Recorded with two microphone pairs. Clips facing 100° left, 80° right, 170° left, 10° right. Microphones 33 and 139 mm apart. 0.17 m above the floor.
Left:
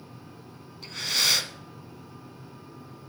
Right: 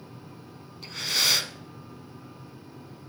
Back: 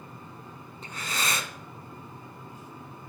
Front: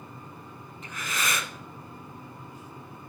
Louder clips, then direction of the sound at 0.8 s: Even, even; 160° right.